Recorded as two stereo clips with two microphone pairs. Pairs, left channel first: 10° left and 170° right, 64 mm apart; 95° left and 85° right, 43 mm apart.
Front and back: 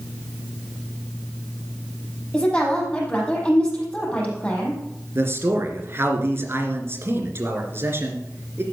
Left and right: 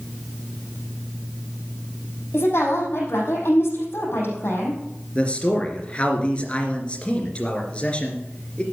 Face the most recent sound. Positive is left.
turn(degrees=150)